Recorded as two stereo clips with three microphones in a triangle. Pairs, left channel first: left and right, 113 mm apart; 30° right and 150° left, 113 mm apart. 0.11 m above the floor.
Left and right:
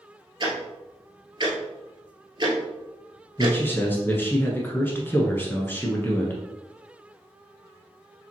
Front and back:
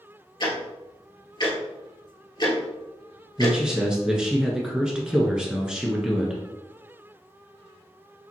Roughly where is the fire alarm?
No fire alarm in this recording.